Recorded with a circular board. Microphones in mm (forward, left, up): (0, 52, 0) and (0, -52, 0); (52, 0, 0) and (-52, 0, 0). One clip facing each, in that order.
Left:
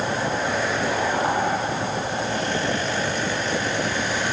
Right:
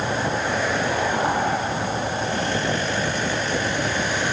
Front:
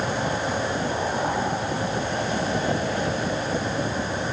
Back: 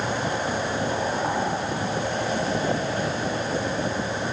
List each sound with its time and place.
Only background noise.